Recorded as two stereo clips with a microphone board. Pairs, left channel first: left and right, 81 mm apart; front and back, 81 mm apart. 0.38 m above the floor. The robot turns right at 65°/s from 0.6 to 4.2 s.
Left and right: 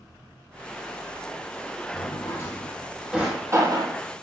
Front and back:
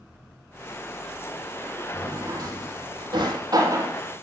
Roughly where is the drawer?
Left.